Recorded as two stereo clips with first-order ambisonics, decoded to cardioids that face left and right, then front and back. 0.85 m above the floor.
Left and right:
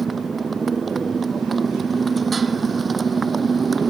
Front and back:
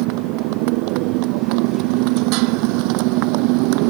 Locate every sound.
0.0 s a motorcycle: 165° right